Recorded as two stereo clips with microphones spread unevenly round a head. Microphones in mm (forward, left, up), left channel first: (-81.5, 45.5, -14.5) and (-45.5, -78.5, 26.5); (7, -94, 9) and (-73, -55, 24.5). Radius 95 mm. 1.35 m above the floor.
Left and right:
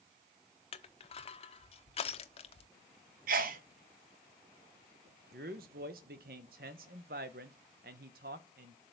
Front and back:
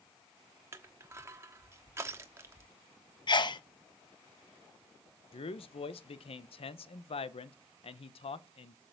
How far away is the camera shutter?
I don't hear a camera shutter.